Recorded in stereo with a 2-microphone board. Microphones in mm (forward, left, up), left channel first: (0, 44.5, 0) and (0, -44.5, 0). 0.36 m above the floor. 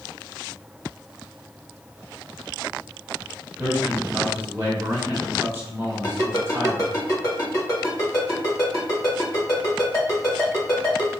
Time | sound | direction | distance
3.6 | a man speaking | 30° right (ahead or behind) | 1.4 m
6.0 | a ringtone | 40° left (ahead or behind) | 1.4 m